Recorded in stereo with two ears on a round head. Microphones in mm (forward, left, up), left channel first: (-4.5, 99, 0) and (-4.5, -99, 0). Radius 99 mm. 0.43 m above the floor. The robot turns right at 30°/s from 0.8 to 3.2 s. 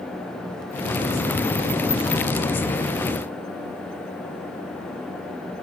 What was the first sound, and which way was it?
Only background noise.